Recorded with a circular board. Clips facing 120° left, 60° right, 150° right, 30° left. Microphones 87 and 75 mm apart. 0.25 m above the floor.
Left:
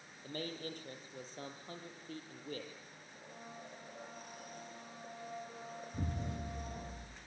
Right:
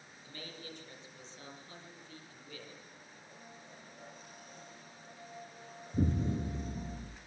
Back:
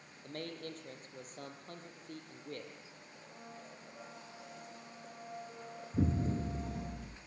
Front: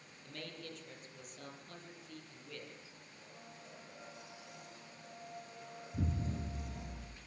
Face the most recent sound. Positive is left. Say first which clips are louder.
# right 11 dB, back 7 dB
turn(degrees=-105)